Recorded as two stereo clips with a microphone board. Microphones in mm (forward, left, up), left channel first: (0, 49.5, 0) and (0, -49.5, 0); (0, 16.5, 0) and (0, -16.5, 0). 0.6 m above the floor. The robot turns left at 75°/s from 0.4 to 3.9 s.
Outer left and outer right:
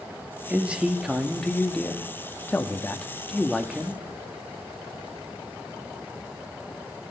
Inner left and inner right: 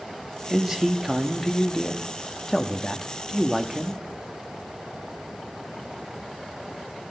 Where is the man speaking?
15° right (ahead or behind), 0.8 m; by 4.0 s 5° right (ahead or behind), 0.8 m.